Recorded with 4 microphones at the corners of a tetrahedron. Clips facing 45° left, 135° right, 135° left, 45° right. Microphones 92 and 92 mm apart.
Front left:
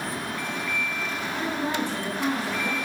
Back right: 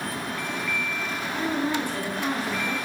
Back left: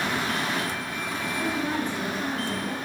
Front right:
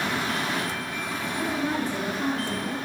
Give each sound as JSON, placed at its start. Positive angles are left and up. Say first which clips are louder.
{"t": 1.4, "sound": "a woman speaking", "louder": "back right 2 dB, front right 1 dB", "azimuth_deg": -85, "distance_m": 0.7}